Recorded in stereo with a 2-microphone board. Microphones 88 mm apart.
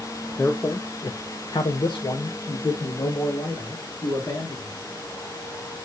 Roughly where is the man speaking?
Left.